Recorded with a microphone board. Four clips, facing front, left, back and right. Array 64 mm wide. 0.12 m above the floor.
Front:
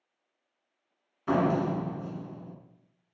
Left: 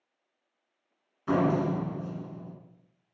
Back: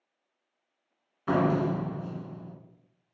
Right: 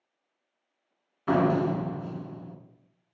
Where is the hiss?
No hiss in this recording.